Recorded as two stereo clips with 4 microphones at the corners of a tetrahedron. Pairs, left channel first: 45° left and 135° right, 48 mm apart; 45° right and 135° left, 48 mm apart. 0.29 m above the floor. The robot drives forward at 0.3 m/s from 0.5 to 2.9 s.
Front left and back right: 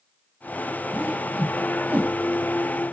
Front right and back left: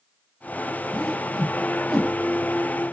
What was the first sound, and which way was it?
A whoosh, 115° right.